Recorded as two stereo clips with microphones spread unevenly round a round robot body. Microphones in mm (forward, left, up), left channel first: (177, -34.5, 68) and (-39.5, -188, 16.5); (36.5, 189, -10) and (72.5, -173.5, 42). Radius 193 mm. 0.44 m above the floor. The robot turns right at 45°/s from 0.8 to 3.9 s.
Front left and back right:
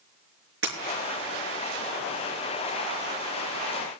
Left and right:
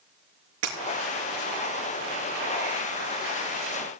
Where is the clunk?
I don't hear a clunk.